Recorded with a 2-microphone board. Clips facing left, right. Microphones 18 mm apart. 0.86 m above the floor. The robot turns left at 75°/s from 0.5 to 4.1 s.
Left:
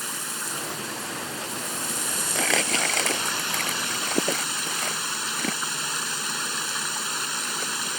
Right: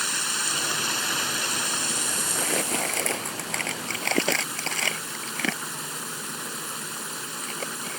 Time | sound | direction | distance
0.0 | running water | 45° right | ?
2.4 | crumpling | 70° left (ahead or behind) | ?